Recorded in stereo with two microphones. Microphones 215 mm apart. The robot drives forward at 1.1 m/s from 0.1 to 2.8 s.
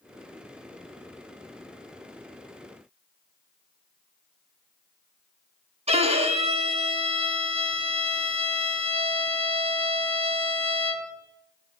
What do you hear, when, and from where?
5.9 s a violin: 30° right (ahead or behind), 1.9 m